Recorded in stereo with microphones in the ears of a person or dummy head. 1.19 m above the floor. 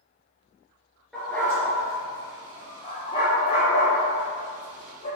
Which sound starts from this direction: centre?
A dog barking, at 1.1 s.